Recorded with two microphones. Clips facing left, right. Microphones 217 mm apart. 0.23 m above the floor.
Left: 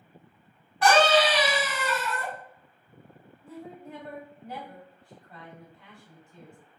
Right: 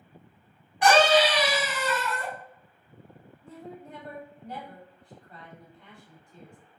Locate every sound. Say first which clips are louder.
0.8 s a scream: right 1 dB; 15° right (ahead or behind), 1.9 m; by 2.3 s 5° left (ahead or behind), 1.6 m
3.4 s a woman speaking: left 1 dB; 5° left (ahead or behind), 1.7 m